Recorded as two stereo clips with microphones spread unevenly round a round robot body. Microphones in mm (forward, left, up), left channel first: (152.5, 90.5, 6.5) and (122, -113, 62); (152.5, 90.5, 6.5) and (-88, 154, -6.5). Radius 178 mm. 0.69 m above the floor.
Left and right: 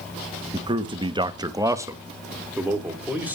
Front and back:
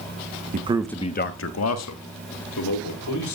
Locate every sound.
0.5 s a man speaking: 175° left, 0.9 m; by 3.4 s 10° right, 3.5 m